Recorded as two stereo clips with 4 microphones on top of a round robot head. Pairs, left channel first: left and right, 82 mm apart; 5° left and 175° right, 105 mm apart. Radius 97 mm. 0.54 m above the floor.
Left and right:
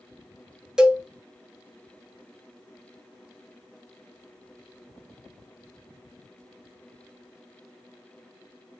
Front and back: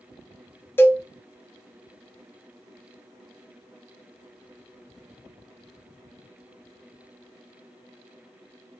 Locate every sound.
0.8 s a cowbell: 20° right, 0.7 m